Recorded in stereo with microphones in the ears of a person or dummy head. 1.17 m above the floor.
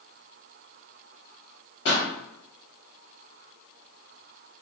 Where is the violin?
No violin in this recording.